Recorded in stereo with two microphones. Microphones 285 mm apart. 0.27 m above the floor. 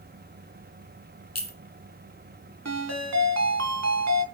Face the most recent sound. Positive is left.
turn(degrees=-75)  # may be behind; listen again after turning